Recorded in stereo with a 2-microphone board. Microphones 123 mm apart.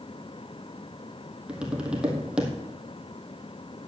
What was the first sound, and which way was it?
Tapping, 10° right (ahead or behind).